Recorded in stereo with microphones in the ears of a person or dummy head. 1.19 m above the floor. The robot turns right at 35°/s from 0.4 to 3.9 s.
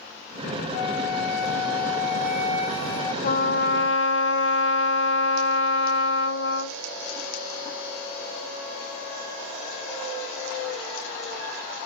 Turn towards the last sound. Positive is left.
turn(degrees=70)  # may be behind; listen again after turning